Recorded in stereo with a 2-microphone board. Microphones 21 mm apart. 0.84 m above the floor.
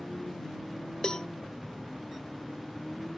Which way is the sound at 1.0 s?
40° left (ahead or behind).